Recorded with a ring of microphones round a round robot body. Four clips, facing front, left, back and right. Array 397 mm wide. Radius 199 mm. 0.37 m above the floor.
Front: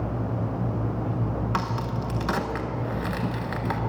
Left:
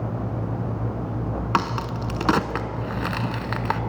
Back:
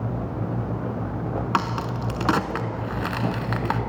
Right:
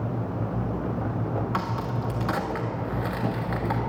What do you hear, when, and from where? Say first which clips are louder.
1.5 s a crack: left 4 dB, back 3 dB; 115° left, 0.7 m